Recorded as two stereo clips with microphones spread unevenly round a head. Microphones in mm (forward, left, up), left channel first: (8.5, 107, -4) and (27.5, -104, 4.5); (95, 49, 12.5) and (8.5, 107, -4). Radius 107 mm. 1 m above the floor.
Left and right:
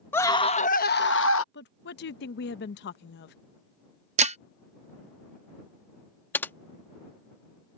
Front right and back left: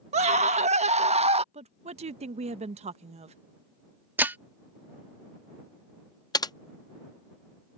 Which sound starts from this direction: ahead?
Typing on a keyboard, at 6.3 s.